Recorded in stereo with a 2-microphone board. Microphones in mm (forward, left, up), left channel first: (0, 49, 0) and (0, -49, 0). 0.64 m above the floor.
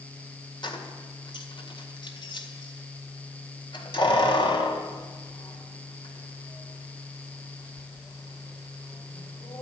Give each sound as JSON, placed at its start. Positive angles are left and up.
{"t": 0.6, "sound": "keys jangling", "side_deg": 55, "distance_m": 1.7}